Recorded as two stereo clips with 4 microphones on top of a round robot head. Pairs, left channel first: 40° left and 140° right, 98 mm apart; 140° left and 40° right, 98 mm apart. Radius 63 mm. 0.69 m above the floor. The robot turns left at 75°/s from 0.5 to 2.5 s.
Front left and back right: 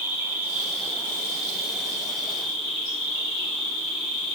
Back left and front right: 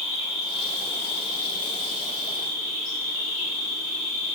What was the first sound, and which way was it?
An insect, 150° left.